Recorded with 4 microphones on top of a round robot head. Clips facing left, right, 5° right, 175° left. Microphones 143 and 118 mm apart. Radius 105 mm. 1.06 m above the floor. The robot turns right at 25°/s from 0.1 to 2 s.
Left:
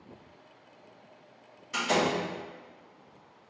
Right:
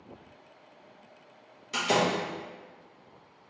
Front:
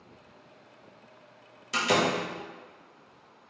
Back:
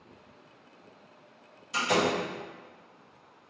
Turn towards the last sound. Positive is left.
turn(degrees=-15)